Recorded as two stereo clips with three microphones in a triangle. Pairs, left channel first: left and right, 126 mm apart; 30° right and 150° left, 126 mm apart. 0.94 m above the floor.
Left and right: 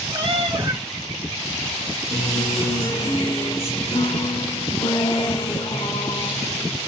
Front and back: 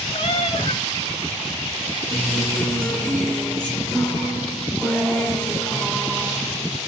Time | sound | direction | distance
0.1 | a cat meowing | 50° right | 1.1 m
2.1 | a guitar | 50° left | 1.4 m